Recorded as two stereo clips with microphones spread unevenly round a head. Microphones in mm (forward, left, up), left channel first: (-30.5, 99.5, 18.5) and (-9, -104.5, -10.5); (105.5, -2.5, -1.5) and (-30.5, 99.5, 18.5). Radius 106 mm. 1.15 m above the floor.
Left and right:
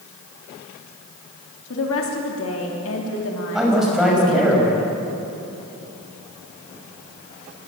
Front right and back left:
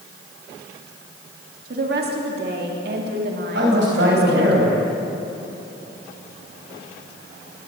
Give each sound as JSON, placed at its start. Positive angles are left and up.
{"t": 1.7, "sound": "a woman speaking", "azimuth_deg": 120, "distance_m": 3.0}
{"t": 3.5, "sound": "a man speaking", "azimuth_deg": -175, "distance_m": 5.5}